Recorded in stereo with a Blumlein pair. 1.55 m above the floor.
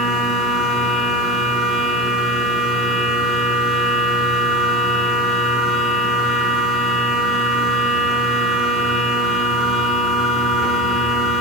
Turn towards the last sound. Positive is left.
turn(degrees=10)